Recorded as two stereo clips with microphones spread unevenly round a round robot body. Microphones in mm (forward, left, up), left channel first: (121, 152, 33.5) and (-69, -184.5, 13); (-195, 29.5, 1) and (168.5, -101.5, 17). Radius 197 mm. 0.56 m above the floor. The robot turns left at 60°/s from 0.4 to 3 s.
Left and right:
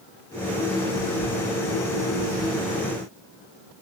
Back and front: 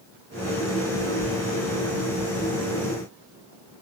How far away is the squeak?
No squeak in this recording.